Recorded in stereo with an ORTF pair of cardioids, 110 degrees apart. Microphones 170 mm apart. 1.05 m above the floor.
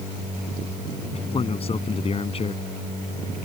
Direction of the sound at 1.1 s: 35° left.